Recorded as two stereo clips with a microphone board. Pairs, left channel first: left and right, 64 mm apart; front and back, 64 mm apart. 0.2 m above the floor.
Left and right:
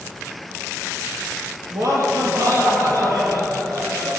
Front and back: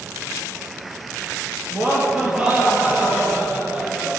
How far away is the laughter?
About 4.5 m.